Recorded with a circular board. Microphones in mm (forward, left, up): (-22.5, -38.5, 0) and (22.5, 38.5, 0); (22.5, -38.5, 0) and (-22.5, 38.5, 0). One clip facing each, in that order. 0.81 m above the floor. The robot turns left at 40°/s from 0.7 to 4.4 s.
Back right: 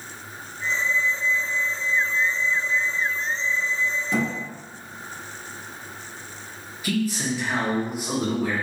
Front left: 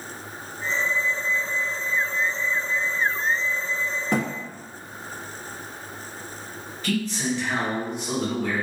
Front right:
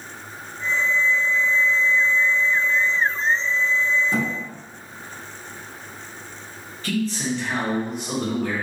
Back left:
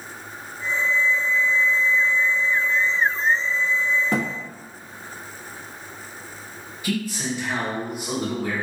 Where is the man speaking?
Straight behind, 1.0 m.